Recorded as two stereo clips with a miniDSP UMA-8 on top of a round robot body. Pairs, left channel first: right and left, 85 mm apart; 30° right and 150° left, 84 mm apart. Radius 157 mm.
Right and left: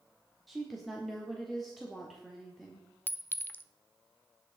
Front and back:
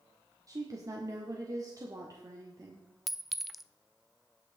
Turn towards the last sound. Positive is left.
turn(degrees=-125)